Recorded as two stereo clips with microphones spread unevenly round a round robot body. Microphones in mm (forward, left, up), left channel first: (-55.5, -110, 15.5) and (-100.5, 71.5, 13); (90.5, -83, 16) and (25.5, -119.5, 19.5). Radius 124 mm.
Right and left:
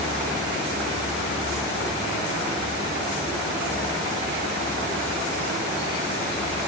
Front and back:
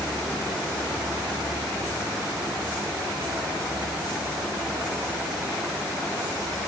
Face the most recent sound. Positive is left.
No sound to turn to.